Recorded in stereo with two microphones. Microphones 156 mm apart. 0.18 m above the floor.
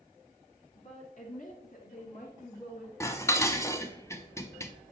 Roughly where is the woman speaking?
Left.